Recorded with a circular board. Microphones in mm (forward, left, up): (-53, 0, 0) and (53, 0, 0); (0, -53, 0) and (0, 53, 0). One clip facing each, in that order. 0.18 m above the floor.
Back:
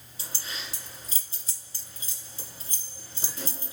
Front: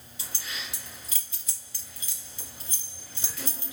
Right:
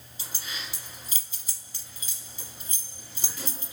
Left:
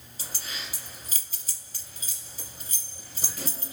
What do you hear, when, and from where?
0.2 s keys jangling: 130° left, 2 m